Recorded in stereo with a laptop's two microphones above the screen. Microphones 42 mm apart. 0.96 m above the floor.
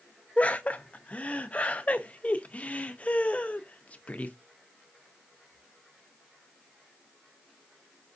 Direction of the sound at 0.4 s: 35° left (ahead or behind).